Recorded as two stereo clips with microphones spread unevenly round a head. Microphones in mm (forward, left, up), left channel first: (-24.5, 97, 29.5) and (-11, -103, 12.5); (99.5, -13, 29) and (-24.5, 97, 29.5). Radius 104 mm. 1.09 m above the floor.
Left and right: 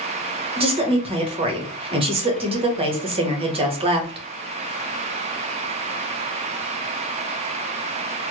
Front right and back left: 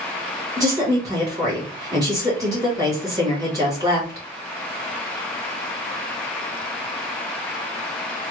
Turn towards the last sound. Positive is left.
turn(degrees=-150)